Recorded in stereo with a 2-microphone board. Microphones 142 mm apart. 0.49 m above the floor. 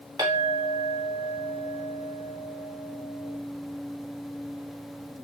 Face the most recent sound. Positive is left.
turn(degrees=-30)  # may be behind; listen again after turning